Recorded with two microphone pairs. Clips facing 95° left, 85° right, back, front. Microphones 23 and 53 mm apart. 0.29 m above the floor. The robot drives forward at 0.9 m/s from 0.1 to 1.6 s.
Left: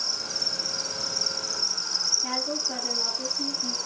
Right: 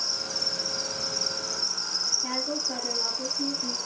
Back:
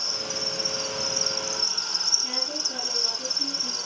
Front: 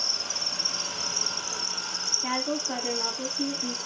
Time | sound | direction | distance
0.0 | an insect | 15° left | 3 m
2.2 | a woman speaking | 5° left | 2.5 m